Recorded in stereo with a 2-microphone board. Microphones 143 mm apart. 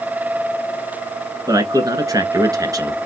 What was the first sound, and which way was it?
A man speaking, 25° right (ahead or behind).